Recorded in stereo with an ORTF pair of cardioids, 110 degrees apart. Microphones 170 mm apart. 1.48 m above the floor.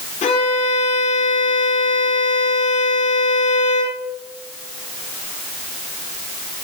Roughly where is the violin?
Ahead left.